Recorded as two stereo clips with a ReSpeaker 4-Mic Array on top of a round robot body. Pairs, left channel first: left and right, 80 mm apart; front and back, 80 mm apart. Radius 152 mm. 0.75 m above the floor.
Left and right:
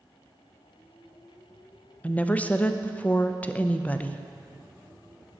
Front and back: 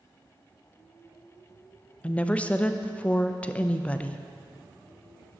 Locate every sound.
2.0 s a woman speaking: 50° left, 0.6 m